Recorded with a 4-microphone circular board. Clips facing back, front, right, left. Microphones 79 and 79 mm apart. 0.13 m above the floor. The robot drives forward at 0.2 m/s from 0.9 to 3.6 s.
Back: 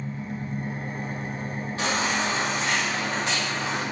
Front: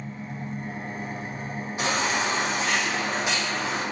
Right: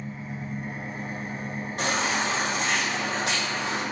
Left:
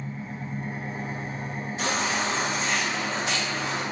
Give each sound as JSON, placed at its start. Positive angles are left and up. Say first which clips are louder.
{"t": 0.0, "sound": "an engine running", "louder": "back 2 dB, even", "azimuth_deg": -165, "distance_m": 0.8}
{"t": 1.8, "sound": "a baby crying", "louder": "even, right 1 dB", "azimuth_deg": -70, "distance_m": 1.8}